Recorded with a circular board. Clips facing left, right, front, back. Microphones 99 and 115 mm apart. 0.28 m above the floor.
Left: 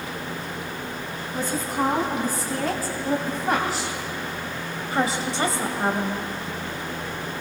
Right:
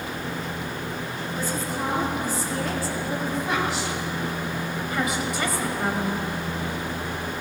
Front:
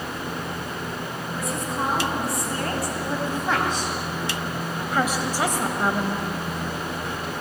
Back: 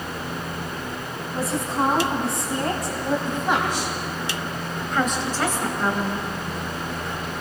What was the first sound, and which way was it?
A woman speaking, 125° left.